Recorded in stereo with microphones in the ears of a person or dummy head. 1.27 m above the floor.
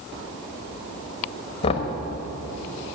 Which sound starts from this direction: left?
Knocking, at 1.6 s.